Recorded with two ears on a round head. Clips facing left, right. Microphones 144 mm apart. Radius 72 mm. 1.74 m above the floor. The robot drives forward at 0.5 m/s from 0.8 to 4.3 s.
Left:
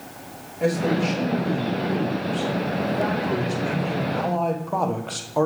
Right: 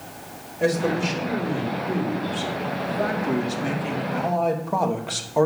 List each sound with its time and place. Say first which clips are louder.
0.6 s a man speaking: even; 5° right (ahead or behind), 3 m